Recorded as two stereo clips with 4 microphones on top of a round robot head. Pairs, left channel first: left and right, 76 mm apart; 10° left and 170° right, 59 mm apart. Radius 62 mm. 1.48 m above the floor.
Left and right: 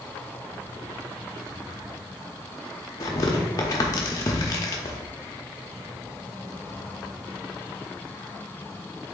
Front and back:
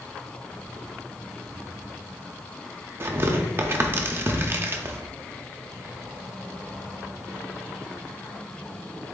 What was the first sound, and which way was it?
Tearing paper, 140° left.